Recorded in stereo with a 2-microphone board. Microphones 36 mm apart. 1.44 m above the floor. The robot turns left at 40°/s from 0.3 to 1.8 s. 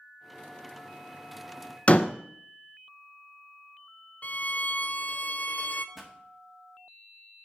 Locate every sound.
1.9 s a door slam: 35° left (ahead or behind), 0.6 m
4.2 s a violin: 45° left (ahead or behind), 0.5 m
6.0 s a pop: 5° right (ahead or behind), 1.7 m